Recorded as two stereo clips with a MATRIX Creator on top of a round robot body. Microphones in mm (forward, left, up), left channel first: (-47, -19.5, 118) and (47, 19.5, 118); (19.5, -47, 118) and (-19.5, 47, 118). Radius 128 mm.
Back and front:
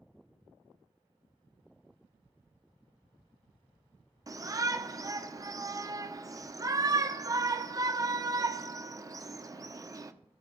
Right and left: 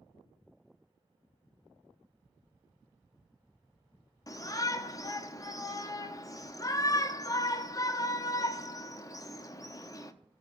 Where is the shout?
25° right, 1.0 m.